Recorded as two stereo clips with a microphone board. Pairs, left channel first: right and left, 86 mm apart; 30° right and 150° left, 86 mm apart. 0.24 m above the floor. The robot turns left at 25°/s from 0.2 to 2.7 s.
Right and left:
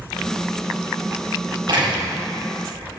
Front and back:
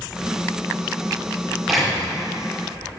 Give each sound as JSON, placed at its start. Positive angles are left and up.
{"t": 1.7, "sound": "a door slam", "azimuth_deg": 65, "distance_m": 5.5}